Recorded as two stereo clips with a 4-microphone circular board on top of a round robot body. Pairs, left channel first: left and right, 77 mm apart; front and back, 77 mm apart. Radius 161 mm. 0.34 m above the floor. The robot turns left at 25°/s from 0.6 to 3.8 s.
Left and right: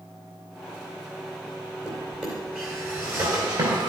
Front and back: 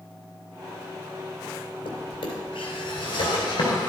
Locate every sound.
1.9 s a drawer: straight ahead, 2.5 m; by 3.9 s 50° right, 2.5 m